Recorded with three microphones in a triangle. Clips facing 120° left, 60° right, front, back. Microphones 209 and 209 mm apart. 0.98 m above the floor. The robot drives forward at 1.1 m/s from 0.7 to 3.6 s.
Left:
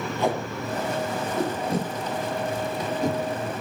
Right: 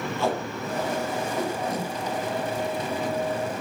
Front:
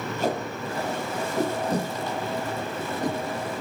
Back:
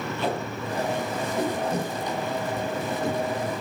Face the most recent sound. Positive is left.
turn(degrees=80)